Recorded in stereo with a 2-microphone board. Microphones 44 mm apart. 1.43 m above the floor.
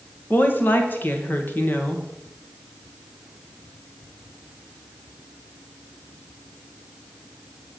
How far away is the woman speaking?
About 1.4 m.